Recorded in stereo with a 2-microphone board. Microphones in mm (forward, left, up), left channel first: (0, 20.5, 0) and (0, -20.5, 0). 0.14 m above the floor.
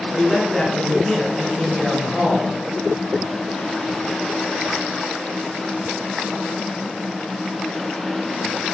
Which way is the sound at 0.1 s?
5° left (ahead or behind).